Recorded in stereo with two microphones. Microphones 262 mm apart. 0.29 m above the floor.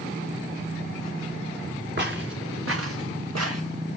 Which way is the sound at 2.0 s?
40° right (ahead or behind).